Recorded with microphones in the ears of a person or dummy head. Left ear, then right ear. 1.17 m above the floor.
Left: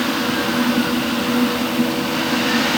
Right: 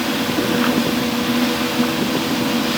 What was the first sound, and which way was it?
Only background noise.